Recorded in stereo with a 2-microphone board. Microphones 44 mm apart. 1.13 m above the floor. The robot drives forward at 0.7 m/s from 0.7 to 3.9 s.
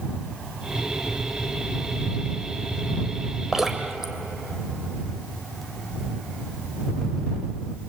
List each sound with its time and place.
3.5 s dripping: 10° right (ahead or behind), 2.5 m